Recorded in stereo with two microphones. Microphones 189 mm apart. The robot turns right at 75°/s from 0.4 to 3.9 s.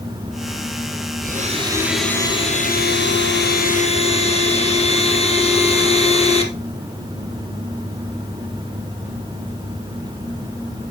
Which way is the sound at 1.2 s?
55° right.